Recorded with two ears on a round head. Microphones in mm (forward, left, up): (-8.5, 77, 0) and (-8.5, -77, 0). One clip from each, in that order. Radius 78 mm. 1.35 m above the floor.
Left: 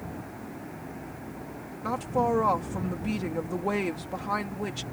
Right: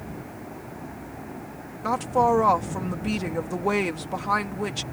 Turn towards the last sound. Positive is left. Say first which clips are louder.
# right 6 dB
turn(degrees=-25)  # may be behind; listen again after turning